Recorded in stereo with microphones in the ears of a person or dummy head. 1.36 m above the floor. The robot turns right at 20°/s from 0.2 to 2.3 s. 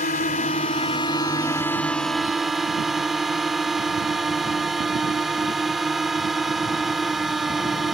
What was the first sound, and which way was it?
A drone, 140° left.